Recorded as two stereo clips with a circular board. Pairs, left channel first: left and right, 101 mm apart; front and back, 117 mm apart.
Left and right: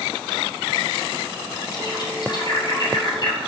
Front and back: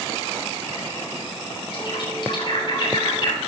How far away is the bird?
About 6 m.